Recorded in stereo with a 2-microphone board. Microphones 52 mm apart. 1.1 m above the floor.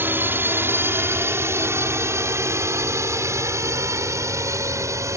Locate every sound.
0.0 s a drone: 40° right (ahead or behind); by 5.2 s 75° right (ahead or behind)